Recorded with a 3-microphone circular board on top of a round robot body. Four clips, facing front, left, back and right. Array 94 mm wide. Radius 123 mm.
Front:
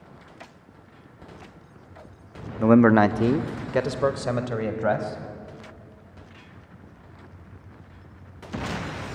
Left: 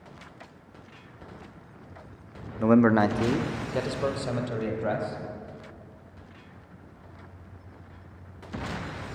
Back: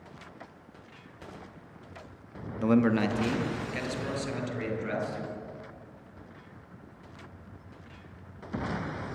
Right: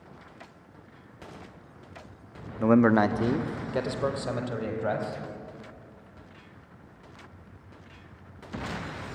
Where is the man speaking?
Straight ahead, 0.9 m.